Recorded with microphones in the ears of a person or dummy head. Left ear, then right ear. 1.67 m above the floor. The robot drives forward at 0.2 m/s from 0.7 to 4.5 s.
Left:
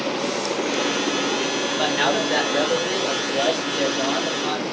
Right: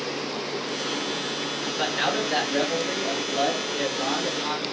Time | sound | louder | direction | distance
1.8 | a man speaking | left 3 dB | 5° right (ahead or behind) | 1.0 m